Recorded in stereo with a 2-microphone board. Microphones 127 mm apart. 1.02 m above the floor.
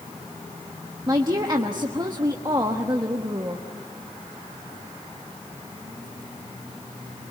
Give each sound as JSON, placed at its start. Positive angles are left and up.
{"t": 1.1, "sound": "a woman speaking", "side_deg": -30, "distance_m": 1.2}